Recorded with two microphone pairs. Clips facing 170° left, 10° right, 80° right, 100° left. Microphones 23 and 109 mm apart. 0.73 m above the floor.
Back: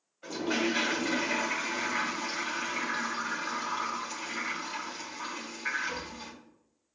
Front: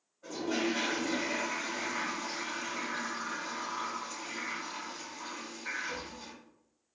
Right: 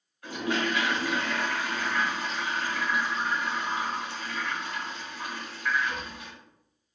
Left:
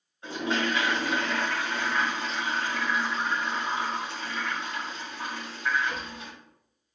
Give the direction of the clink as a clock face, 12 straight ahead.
I don't hear a clink.